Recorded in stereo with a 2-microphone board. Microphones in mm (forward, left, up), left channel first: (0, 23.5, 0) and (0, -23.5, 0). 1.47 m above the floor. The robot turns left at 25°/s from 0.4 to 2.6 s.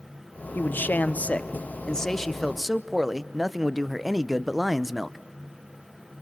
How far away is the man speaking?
About 0.8 m.